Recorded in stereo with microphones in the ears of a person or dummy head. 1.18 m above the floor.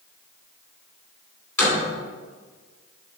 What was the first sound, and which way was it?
A door slam, 15° left (ahead or behind).